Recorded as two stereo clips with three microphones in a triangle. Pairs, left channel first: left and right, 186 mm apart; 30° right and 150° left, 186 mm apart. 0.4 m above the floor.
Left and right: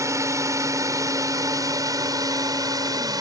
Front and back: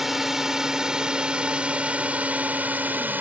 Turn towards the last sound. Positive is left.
turn(degrees=-140)